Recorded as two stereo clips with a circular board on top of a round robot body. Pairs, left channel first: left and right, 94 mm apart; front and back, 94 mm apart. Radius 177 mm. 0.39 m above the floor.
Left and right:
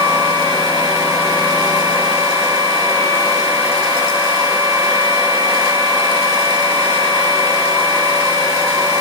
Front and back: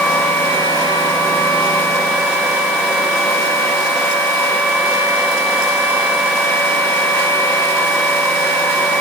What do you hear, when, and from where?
Only background noise.